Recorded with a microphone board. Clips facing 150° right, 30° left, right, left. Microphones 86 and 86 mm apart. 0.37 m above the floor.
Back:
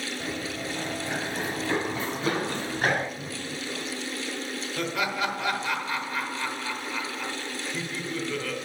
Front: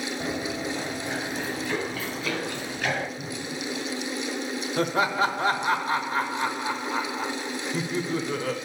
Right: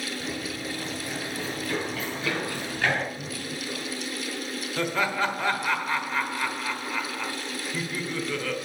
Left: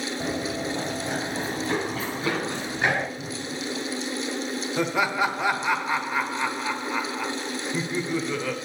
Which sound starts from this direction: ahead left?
Laughter, at 4.8 s.